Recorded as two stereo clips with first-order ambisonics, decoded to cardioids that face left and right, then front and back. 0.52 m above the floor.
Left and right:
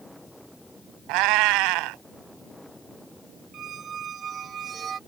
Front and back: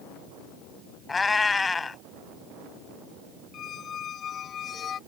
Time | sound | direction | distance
1.1 | a cat meowing | 75° right | ?
3.5 | a squeak | 45° right | ?